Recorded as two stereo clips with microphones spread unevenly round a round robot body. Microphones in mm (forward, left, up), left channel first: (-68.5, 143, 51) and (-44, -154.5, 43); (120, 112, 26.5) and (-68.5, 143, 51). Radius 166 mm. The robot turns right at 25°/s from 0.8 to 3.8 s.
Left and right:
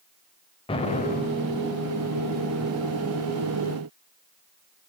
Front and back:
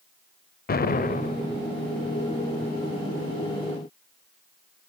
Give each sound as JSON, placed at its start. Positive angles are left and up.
{"t": 0.7, "sound": "an explosion", "azimuth_deg": 20, "distance_m": 0.7}